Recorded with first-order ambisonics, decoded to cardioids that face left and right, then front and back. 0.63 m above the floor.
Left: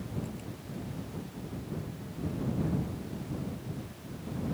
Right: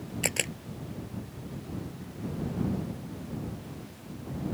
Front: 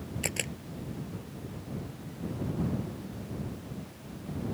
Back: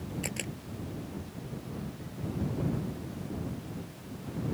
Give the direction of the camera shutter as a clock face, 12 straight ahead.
2 o'clock.